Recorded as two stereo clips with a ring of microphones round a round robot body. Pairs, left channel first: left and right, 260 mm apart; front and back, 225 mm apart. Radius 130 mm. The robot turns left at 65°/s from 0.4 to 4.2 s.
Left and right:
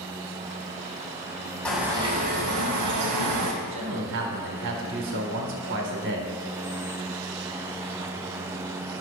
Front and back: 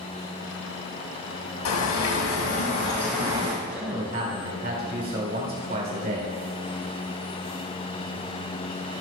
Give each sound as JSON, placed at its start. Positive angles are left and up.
{"t": 1.6, "sound": "a bird", "azimuth_deg": 5, "distance_m": 1.9}
{"t": 3.6, "sound": "a man speaking", "azimuth_deg": -90, "distance_m": 2.5}